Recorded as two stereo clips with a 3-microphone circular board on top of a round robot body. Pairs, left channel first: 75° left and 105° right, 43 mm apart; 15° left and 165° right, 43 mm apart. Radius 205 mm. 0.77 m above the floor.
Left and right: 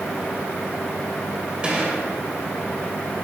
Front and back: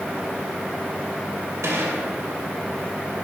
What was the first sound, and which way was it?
A gunshot, 170° right.